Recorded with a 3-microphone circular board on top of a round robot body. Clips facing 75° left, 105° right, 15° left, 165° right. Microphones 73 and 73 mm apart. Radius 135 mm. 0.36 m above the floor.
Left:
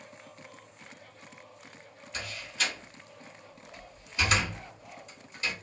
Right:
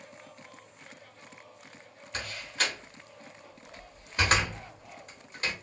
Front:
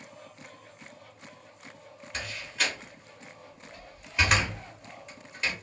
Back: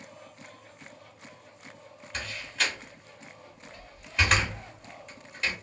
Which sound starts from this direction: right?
A door slam, at 2.1 s.